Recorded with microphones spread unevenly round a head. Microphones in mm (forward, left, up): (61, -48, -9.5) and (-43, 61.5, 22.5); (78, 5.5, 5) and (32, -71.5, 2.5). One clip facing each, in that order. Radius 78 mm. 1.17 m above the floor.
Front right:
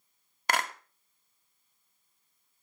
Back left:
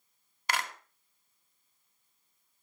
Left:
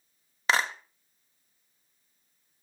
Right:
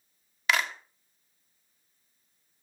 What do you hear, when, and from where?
0.5 s a clap: straight ahead, 1.3 m